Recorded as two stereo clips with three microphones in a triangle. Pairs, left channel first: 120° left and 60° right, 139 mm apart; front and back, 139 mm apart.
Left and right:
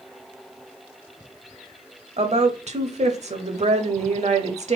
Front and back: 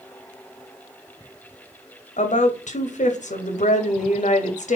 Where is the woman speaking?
25° right, 0.7 m.